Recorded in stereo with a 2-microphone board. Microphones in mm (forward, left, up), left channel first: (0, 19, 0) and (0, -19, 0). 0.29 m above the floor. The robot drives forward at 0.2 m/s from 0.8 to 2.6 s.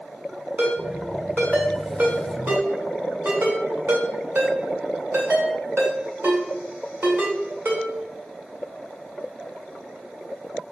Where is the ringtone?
60° right (ahead or behind), 2 m; by 7.8 s 65° right (ahead or behind), 2 m.